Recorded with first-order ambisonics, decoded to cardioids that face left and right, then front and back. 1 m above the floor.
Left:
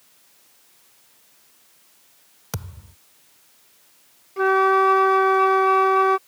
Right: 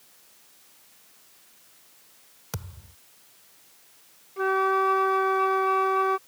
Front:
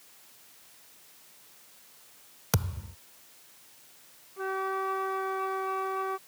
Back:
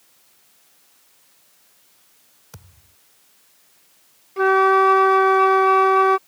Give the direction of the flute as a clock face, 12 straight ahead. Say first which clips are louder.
Left 6 dB, back 17 dB; 7 o'clock.